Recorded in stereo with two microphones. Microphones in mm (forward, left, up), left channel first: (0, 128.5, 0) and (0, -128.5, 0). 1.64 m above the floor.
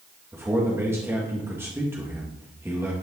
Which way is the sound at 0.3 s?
10° right (ahead or behind).